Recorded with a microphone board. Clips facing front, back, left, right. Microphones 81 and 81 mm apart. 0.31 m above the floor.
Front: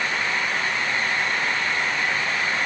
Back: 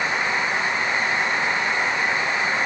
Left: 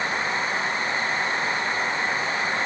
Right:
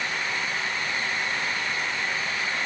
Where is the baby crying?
No baby crying in this recording.